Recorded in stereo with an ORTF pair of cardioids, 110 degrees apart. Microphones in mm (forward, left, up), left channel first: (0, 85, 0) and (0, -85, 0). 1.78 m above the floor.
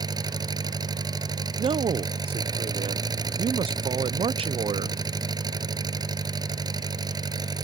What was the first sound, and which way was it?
An engine running, 25° right.